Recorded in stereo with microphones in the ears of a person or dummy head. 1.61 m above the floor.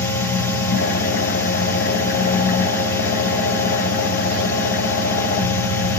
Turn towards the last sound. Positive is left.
turn(degrees=60)  # may be behind; listen again after turning